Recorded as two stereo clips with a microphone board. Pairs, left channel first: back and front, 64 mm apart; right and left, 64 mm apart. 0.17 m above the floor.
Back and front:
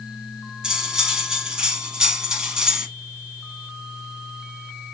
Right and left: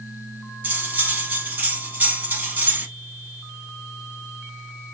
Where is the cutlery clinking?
65° left, 0.7 m.